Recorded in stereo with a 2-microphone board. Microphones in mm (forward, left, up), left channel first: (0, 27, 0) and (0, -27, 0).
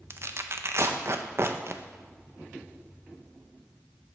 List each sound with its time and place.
0.1 s tearing paper: 50° right (ahead or behind), 0.5 m